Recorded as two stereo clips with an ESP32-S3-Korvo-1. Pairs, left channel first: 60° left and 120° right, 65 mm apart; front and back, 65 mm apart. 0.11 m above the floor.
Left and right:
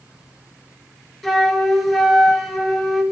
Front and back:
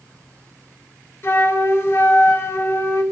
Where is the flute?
25° right, 0.9 m.